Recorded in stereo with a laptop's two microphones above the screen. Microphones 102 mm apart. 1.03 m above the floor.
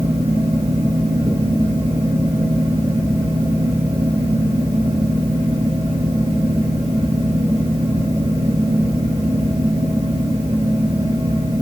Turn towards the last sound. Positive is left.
turn(degrees=-75)  # may be behind; listen again after turning